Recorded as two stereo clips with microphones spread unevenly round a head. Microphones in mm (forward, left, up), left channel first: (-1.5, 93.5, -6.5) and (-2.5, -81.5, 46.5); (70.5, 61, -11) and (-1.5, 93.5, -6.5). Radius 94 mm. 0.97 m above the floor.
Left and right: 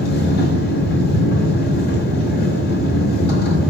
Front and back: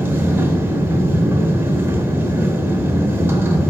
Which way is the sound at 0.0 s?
120° left.